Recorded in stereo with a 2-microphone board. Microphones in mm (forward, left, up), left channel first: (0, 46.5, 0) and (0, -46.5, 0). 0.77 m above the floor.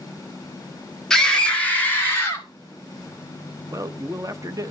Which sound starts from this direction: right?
A man speaking, at 3.7 s.